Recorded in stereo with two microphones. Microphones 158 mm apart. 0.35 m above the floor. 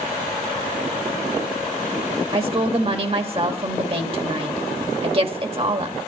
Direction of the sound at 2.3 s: 40° right (ahead or behind).